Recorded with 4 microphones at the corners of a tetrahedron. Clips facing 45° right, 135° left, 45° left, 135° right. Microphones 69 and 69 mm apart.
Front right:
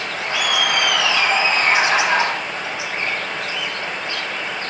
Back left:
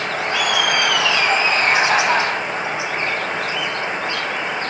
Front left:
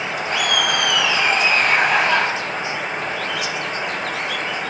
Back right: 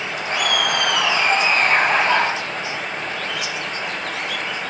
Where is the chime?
I don't hear a chime.